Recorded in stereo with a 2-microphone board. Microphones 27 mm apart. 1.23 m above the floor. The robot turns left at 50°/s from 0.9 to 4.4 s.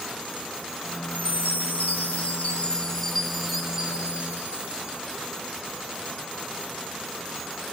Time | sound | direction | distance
1.1 | a chime | 115° left | 7 m